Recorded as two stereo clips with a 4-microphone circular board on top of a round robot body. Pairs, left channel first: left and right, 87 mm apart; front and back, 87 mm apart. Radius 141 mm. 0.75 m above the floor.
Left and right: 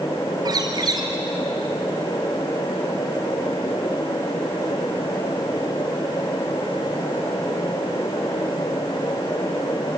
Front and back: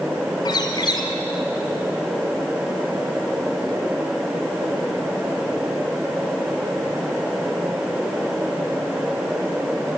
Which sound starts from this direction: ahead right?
A bird, at 0.5 s.